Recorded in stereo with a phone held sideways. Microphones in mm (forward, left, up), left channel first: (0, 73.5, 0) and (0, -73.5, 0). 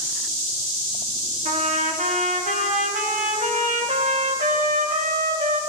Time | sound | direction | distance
1.4 | a trumpet | 65° right (ahead or behind) | 1.5 m